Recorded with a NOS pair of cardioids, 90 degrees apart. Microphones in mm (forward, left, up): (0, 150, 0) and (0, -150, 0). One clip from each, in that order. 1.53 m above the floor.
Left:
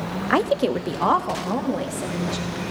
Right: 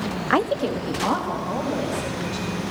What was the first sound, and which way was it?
A woman speaking, 5° right.